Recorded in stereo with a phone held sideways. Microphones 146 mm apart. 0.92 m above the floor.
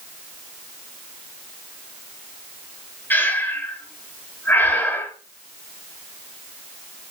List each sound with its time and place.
3.1 s breathing: 10° left (ahead or behind), 2 m